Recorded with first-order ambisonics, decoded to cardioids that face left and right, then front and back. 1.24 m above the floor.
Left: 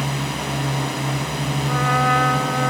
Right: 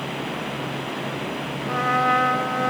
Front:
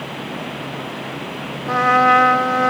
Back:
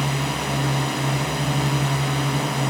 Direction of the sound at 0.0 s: 140° left.